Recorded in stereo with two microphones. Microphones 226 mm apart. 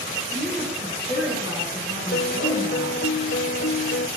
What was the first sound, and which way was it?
A woman speaking, 20° right (ahead or behind).